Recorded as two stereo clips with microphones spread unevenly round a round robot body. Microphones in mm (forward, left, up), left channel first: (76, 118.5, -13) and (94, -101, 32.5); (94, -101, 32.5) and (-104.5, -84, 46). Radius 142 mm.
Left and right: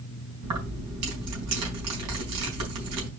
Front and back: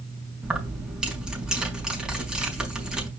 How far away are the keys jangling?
About 4.5 m.